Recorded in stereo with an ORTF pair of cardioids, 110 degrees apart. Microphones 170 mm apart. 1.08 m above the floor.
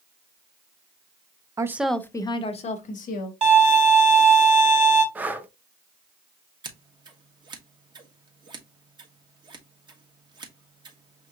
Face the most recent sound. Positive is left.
turn(degrees=-25)